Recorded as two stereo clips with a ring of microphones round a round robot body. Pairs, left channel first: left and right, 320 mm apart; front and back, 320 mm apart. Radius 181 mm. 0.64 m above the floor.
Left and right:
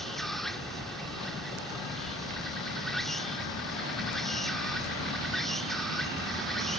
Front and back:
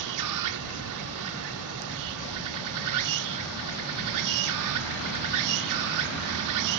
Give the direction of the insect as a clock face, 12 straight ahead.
6 o'clock.